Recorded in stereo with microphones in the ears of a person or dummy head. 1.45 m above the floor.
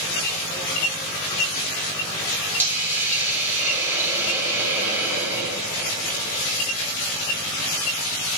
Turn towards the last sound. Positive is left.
turn(degrees=-15)  # may be behind; listen again after turning